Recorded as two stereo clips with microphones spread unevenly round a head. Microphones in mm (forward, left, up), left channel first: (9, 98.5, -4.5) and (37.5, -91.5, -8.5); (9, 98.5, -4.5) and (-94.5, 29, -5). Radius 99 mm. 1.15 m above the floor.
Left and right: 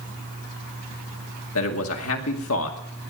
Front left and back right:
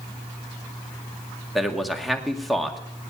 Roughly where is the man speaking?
Behind left.